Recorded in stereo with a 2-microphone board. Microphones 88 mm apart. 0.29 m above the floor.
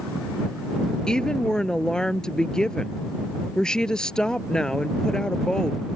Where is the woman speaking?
10° left (ahead or behind).